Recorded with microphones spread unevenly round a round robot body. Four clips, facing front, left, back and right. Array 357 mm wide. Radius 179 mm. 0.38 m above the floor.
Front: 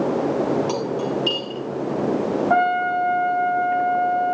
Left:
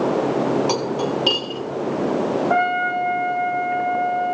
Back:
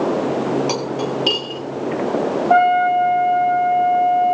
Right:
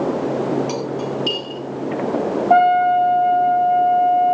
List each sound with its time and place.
0.7 s cutlery clinking: 135° left, 5.5 m
2.5 s a trumpet: 145° right, 3 m